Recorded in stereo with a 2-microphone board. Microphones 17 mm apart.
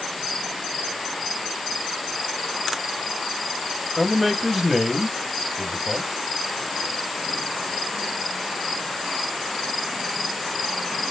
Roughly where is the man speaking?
Centre.